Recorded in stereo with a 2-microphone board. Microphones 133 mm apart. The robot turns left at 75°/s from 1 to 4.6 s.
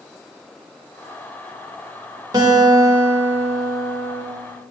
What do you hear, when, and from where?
2.3 s a guitar: 90° right, 1.0 m; by 4.2 s 130° left, 1.0 m